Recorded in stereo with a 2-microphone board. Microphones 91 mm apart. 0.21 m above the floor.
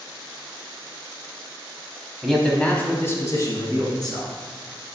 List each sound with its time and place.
2.2 s a man speaking: centre (ahead or behind), 1.0 m; by 4.3 s 55° left (ahead or behind), 1.9 m